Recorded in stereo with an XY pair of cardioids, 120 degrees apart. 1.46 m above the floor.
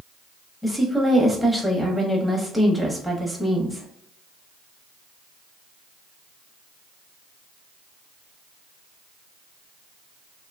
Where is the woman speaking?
Straight ahead, 0.9 m.